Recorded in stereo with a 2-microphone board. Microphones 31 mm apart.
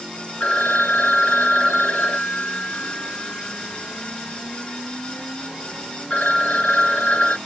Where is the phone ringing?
45° left (ahead or behind), 1.6 m.